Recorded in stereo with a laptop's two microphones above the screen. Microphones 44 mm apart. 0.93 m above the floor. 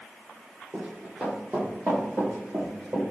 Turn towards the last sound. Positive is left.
turn(degrees=-55)  # may be behind; listen again after turning